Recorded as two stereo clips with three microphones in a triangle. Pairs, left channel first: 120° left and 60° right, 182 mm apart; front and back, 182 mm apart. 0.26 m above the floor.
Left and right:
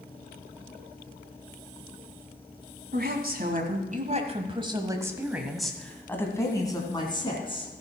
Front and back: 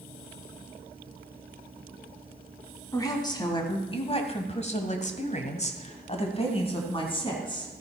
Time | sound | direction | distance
2.9 | a woman speaking | 65° right | 1.9 m